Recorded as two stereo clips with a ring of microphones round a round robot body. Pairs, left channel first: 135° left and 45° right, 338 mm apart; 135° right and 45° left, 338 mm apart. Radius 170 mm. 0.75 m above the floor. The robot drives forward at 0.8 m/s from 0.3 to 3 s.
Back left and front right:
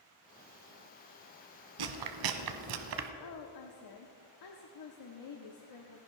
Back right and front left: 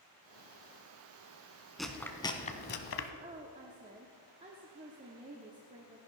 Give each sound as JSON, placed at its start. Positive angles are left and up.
{"t": 1.8, "sound": "chewing", "azimuth_deg": -45, "distance_m": 1.4}
{"t": 3.2, "sound": "a woman speaking", "azimuth_deg": 115, "distance_m": 1.3}